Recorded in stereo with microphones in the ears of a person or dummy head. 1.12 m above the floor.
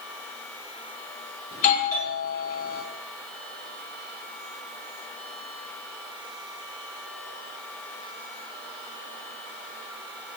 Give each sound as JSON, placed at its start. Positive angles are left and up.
{"t": 1.5, "sound": "a doorbell", "side_deg": 35, "distance_m": 2.5}